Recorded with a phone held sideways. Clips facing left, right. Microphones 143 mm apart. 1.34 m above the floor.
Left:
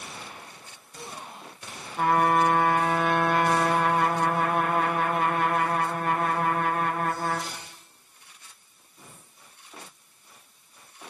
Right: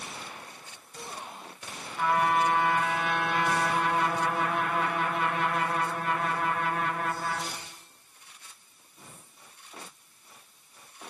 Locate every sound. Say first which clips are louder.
2.0 s a trumpet: left 4 dB; 45° left (ahead or behind), 0.8 m